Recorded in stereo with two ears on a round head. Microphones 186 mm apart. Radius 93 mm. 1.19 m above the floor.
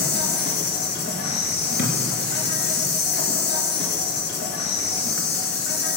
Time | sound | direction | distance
0.0 | an insect | 50° left (ahead or behind) | 2.5 m
1.8 | a thud | 50° left (ahead or behind) | 3 m